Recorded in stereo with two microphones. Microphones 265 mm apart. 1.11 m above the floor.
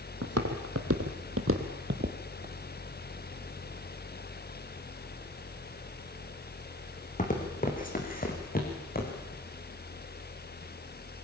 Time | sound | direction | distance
0.2 | footsteps | 65° right (ahead or behind) | 2.5 m